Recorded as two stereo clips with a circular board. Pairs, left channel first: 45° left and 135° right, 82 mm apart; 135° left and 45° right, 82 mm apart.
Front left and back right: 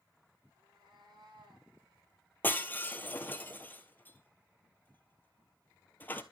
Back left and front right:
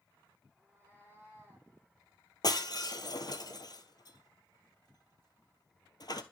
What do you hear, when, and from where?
0.6 s a cat meowing: 110° right, 7 m; by 1.7 s 115° right, 7 m
2.4 s breaking glass: 110° left, 0.9 m